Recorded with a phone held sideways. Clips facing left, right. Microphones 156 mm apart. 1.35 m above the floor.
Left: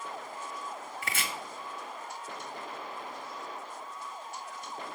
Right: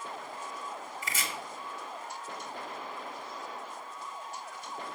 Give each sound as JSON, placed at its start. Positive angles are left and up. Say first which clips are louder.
{"t": 1.0, "sound": "chopping", "louder": "left 2 dB", "side_deg": 65, "distance_m": 1.4}